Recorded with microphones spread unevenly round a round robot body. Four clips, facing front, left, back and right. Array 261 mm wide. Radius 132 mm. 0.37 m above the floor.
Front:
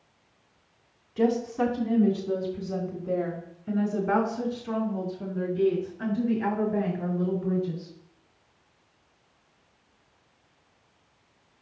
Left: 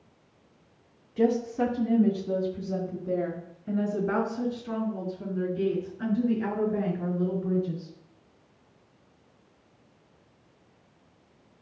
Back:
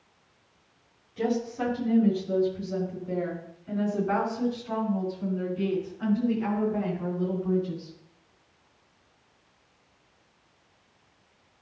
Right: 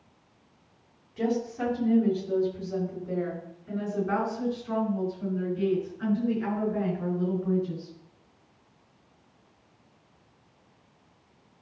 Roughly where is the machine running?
I don't hear a machine running.